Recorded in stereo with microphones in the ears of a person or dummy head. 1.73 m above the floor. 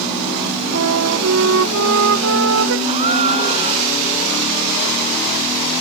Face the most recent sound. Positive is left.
turn(degrees=-35)  # may be behind; listen again after turning